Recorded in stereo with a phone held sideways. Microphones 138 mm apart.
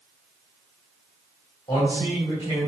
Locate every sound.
1.7 s a man speaking: 25° left (ahead or behind), 4 m